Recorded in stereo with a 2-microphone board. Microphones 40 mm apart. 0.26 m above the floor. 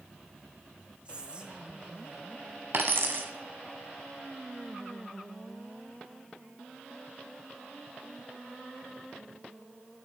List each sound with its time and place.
1.1 s whispering: 30° right (ahead or behind), 1.3 m
2.7 s a dropped coin: 55° right (ahead or behind), 1.0 m